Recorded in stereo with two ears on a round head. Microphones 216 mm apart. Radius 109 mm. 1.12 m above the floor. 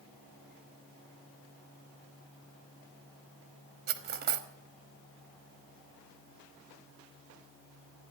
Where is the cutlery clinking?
40° right (ahead or behind), 1.1 m.